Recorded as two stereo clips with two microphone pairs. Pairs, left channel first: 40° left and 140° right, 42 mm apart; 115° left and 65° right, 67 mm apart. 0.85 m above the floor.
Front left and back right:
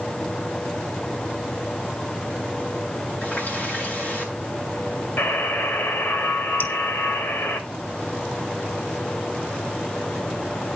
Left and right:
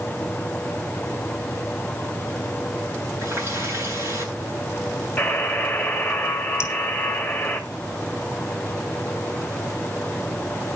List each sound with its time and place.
3.2 s a running tap: 15° right, 7.5 m
5.2 s a buzzer: 55° left, 1.7 m
6.6 s dripping: 65° left, 1.6 m